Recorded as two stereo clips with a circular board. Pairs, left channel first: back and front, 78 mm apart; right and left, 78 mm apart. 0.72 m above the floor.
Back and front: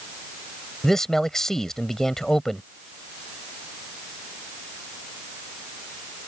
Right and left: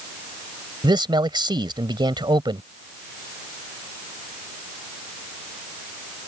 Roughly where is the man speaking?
Left.